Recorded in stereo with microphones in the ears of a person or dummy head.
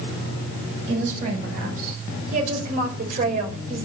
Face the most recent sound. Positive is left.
turn(degrees=-40)  # may be behind; listen again after turning